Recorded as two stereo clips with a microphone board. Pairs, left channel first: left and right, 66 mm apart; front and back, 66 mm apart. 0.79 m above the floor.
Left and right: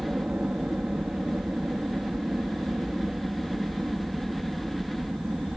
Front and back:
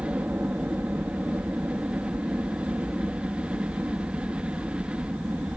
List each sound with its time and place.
0.0 s a helicopter: 145° right